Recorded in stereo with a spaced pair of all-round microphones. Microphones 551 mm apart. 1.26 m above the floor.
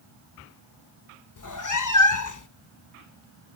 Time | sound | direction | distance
1.4 | a cat meowing | 35° left (ahead or behind) | 0.6 m